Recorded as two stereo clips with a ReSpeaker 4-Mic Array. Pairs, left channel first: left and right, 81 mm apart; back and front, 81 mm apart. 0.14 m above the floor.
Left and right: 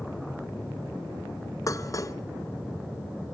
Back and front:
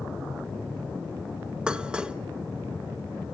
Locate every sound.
1.7 s dishes clattering: 75° left, 1.0 m